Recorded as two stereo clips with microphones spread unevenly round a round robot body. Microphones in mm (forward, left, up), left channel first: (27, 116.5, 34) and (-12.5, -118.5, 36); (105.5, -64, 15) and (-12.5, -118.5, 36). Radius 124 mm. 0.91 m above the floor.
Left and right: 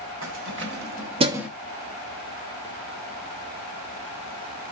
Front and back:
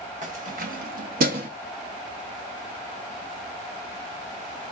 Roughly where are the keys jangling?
Behind right.